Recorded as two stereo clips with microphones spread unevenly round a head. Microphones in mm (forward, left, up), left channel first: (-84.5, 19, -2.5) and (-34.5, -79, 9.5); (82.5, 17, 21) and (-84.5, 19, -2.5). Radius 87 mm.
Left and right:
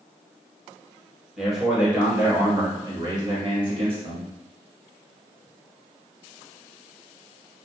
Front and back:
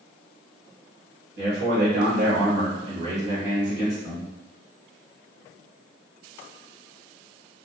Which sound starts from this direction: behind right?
A man speaking, at 1.4 s.